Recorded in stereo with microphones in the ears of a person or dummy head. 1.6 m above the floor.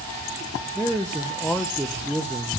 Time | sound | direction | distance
0.8 | a man speaking | centre (ahead or behind) | 0.7 m